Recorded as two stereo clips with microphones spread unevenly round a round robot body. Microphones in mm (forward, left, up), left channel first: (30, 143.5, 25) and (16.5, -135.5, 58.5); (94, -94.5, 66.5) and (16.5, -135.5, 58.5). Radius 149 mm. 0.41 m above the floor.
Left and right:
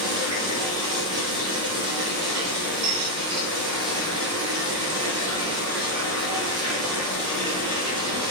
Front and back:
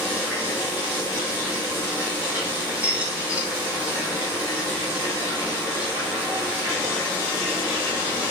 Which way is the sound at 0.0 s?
160° right.